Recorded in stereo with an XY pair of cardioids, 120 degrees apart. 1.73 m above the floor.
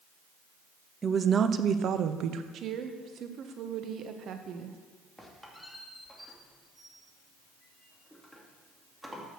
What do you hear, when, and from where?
1.0 s a woman speaking: 25° right, 0.8 m; by 2.4 s 70° right, 1.1 m
2.5 s a woman speaking: 60° right, 1.5 m
5.2 s a squeak: straight ahead, 2.5 m